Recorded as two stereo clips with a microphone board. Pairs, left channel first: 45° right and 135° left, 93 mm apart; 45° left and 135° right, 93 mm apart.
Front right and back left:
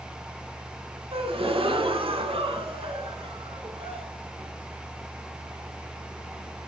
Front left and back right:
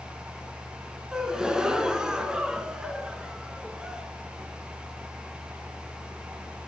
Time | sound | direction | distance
1.1 | a gasp | 145° left | 0.7 m